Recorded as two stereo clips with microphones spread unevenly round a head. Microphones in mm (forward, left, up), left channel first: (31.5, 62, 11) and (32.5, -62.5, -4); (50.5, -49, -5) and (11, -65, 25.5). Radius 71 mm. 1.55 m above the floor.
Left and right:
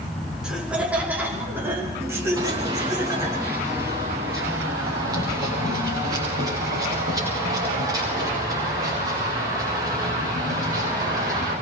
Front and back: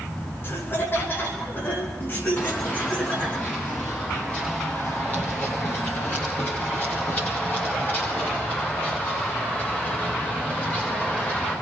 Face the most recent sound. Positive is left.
turn(degrees=-30)